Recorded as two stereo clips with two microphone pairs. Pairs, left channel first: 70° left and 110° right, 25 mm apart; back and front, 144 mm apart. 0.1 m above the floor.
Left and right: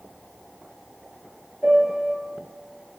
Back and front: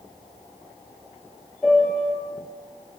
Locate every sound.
1.6 s a piano: 90° right, 2 m